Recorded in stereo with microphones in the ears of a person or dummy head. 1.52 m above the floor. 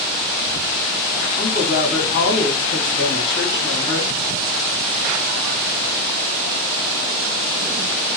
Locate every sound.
1.4 s a woman speaking: 60° left (ahead or behind), 2 m